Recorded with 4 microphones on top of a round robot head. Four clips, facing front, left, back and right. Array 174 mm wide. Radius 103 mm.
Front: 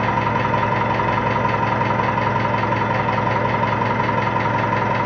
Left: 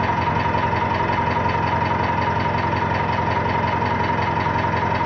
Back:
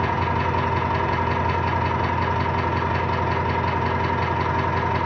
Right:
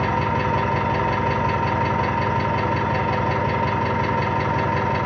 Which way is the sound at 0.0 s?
15° right.